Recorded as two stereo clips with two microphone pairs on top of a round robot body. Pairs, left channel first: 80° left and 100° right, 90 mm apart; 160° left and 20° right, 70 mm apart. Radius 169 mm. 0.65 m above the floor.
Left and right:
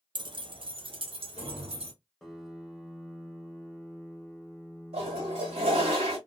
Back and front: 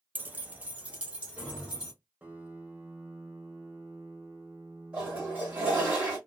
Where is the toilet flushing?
100° right, 1.2 m.